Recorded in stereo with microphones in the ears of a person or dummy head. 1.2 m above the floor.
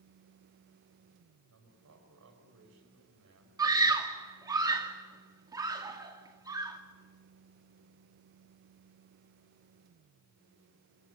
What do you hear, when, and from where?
1.5 s a man speaking: 85° right, 5.5 m
3.6 s a scream: 20° right (ahead or behind), 2.5 m